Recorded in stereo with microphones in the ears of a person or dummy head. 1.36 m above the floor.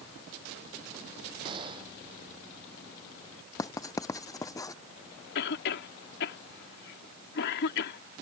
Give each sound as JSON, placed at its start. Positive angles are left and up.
{"t": 1.4, "sound": "a gunshot", "side_deg": -25}
{"t": 3.6, "sound": "writing", "side_deg": 15}
{"t": 5.3, "sound": "a cough", "side_deg": 65}